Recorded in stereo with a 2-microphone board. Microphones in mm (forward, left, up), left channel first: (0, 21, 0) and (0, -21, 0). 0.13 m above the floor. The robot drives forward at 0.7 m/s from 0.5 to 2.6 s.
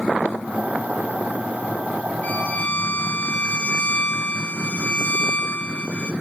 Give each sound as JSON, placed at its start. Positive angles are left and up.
{"t": 2.2, "sound": "a violin", "side_deg": 35, "distance_m": 1.7}